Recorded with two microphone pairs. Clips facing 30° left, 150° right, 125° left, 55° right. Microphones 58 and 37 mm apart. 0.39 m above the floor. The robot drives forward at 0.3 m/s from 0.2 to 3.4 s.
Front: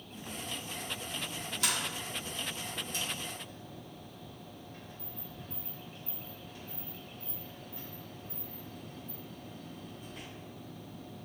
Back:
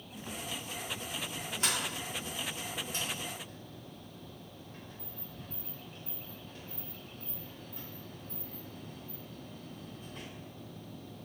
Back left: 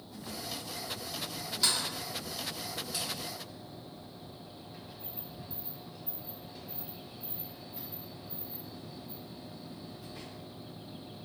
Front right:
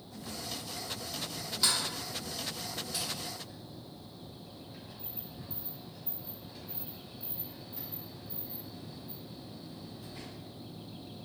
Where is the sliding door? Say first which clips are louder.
Even, even; 145° right, 1.5 m; by 10.3 s 160° right, 1.8 m.